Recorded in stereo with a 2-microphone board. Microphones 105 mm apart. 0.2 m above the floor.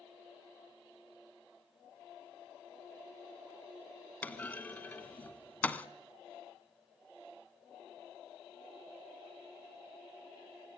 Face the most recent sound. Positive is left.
turn(degrees=15)  # may be behind; listen again after turning